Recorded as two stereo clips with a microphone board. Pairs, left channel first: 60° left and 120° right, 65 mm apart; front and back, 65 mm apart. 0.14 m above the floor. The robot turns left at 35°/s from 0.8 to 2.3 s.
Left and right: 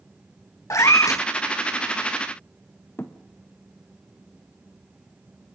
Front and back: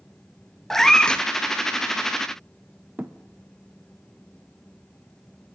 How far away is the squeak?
No squeak in this recording.